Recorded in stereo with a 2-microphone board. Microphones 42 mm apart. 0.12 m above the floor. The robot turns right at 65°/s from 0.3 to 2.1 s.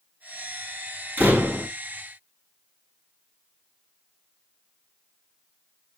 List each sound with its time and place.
1.2 s a door slam: 80° right, 1.5 m; by 1.7 s 45° right, 1.5 m